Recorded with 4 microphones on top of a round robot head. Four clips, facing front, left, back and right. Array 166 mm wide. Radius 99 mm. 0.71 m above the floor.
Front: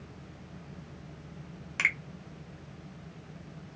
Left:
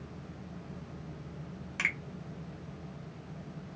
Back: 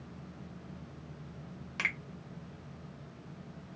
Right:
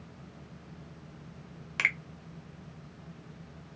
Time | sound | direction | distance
1.8 | a finger snap | 80° right | 0.9 m